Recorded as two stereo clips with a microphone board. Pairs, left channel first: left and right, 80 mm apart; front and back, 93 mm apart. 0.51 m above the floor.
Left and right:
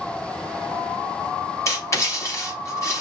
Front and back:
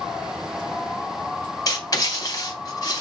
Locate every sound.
1.7 s writing: 45° left, 3 m